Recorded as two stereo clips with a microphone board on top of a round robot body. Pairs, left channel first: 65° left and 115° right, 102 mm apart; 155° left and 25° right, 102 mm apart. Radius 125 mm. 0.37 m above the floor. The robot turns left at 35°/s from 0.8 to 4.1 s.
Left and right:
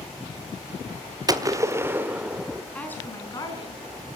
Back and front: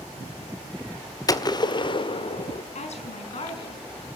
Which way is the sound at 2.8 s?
145° left.